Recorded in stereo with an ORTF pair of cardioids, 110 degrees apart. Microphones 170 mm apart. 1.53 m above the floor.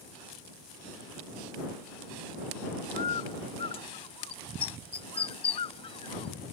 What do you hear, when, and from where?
3.0 s a bird: 35° left